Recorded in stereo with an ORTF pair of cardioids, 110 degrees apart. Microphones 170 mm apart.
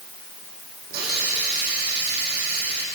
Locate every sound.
0.9 s a hiss: 70° right, 9 m